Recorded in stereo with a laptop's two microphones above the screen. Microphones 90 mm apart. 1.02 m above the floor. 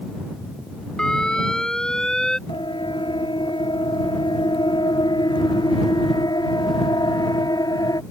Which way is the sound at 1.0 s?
10° left (ahead or behind).